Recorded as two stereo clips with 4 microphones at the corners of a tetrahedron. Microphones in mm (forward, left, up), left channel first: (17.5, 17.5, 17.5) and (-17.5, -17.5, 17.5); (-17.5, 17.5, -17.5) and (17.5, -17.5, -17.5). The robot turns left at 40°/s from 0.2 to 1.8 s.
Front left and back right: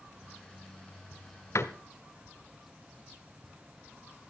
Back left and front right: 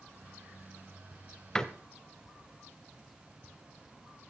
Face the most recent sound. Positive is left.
turn(degrees=50)